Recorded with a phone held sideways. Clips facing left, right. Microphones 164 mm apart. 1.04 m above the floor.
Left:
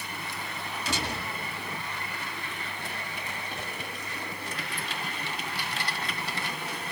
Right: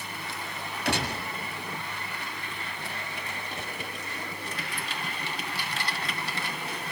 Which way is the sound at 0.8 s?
65° right (ahead or behind).